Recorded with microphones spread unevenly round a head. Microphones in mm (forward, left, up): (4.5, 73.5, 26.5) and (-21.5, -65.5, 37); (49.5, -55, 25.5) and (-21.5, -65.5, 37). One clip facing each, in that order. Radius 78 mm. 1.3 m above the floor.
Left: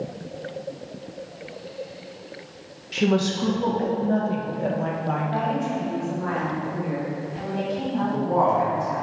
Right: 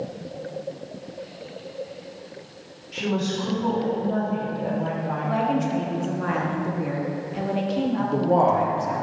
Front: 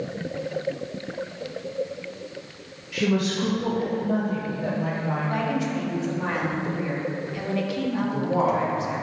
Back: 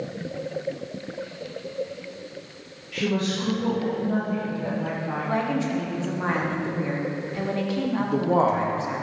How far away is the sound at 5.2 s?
About 1.2 m.